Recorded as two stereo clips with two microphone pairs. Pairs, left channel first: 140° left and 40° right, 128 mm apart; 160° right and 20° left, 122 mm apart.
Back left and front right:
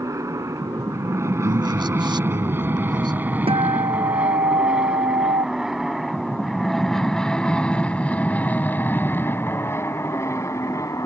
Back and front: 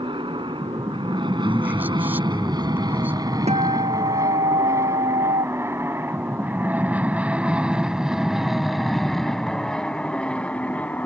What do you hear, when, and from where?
0.0 s an aircraft: 10° left; by 11.1 s 140° left
1.4 s a man speaking: 45° right
3.5 s a guitar: straight ahead